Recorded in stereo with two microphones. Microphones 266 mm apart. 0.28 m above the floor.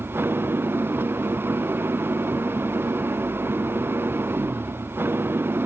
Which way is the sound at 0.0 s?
10° right (ahead or behind).